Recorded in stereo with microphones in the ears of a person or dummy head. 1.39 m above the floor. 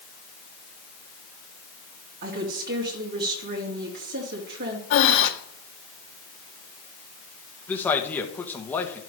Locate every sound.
2.2 s a woman speaking: 55° right (ahead or behind), 2.5 m
4.9 s breathing: 60° left (ahead or behind), 1.5 m
7.7 s a man speaking: 10° left (ahead or behind), 1.5 m